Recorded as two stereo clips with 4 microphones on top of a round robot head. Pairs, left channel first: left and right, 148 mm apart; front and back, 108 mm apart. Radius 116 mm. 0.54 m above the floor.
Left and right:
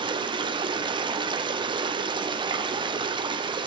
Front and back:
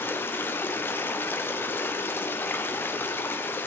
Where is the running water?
60° right, 0.7 m.